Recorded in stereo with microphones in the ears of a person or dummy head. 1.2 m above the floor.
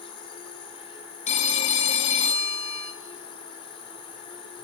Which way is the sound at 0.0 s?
30° left (ahead or behind).